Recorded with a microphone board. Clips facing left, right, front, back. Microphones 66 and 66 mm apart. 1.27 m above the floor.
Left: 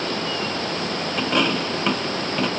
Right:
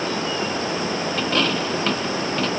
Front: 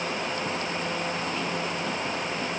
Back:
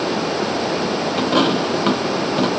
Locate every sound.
0.0 s running water: 170° right
1.2 s a dropped coin: 165° left